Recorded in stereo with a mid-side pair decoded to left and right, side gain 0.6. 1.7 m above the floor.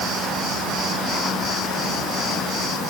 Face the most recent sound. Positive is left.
No sound to turn to.